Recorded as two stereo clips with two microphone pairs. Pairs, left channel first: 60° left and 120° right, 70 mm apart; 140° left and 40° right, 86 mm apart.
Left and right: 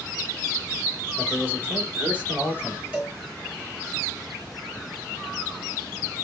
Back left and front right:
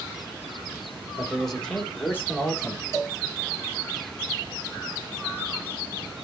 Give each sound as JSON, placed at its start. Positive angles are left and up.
{"t": 1.2, "sound": "a man speaking", "azimuth_deg": -125, "distance_m": 1.1}
{"t": 2.9, "sound": "a cowbell", "azimuth_deg": -55, "distance_m": 1.4}